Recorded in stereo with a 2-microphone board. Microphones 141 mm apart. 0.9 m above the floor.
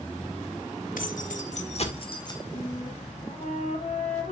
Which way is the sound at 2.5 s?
55° left (ahead or behind).